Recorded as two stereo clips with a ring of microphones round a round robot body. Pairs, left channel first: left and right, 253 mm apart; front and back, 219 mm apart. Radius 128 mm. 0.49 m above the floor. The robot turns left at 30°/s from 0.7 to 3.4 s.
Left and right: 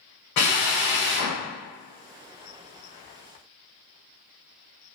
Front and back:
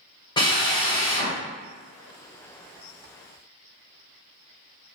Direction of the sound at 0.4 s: 70° left.